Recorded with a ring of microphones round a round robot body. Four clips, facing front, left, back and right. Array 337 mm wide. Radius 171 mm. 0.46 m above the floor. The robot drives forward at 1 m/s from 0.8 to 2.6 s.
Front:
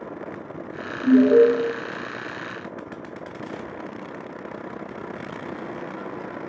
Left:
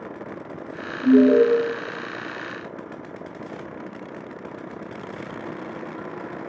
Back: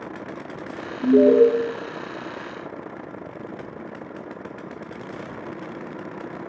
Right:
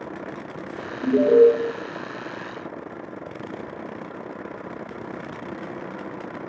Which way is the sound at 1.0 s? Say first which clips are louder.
Left 1 dB, even; 175° right.